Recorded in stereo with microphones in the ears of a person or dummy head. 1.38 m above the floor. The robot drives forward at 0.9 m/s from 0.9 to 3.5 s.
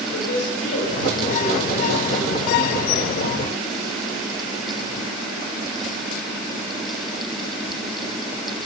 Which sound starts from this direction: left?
A woman speaking, at 0.1 s.